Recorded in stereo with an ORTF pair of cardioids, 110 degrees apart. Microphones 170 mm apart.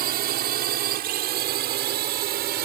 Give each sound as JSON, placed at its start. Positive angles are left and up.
{"t": 0.0, "sound": "a drone", "azimuth_deg": -70}